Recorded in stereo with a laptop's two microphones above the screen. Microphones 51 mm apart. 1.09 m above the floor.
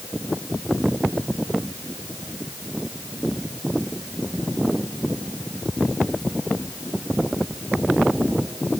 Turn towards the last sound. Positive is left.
No sound to turn to.